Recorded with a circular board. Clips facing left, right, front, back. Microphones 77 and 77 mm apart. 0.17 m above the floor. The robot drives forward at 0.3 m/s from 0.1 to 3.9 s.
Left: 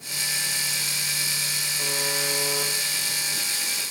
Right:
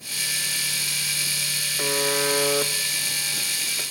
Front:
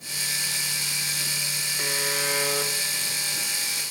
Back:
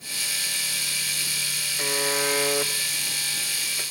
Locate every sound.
1.8 s a buzzer: 85° right, 1.0 m; by 3.8 s 125° right, 1.1 m